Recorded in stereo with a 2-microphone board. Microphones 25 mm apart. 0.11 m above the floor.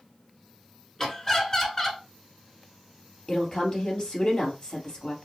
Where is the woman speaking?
25° left (ahead or behind), 2 m.